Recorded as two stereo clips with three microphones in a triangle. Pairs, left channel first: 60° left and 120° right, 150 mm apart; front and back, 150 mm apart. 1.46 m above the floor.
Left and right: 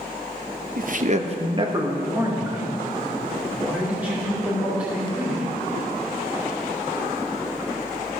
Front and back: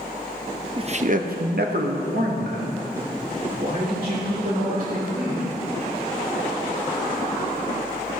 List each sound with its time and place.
0.8 s a man speaking: 130° right, 0.6 m; by 5.5 s 155° left, 4 m